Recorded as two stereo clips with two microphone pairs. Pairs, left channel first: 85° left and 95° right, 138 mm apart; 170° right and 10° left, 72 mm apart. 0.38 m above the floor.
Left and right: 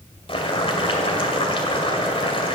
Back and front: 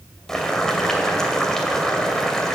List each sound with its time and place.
0.3 s boiling: 110° left, 2 m